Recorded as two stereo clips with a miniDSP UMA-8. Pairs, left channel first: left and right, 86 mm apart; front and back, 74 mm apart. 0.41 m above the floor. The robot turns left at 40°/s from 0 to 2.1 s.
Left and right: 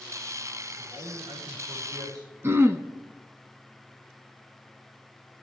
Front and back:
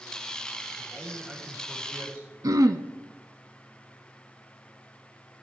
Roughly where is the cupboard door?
I don't hear a cupboard door.